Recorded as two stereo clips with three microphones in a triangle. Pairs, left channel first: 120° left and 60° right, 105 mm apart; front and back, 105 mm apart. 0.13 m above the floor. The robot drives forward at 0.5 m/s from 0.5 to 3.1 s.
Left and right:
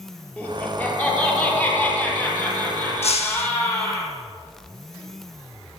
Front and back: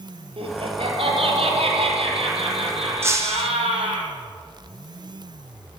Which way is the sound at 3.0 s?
115° left.